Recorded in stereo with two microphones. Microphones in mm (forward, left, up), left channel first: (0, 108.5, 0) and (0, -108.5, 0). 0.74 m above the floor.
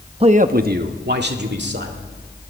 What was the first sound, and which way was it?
A man speaking, 25° right (ahead or behind).